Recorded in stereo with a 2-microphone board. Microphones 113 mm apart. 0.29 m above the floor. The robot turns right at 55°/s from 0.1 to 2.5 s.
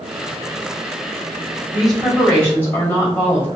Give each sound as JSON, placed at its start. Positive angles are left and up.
{"t": 1.7, "sound": "a woman speaking", "azimuth_deg": -10, "distance_m": 1.6}